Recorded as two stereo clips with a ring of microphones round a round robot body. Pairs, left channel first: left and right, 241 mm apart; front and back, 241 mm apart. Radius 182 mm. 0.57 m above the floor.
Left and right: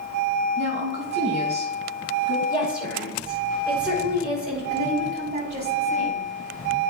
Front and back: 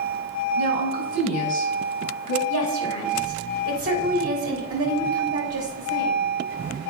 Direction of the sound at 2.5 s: 170° left.